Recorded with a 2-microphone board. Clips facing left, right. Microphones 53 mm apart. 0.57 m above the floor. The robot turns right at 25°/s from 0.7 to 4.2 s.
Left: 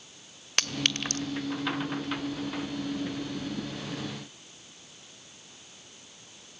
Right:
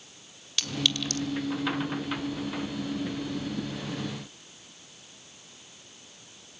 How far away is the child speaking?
I don't hear a child speaking.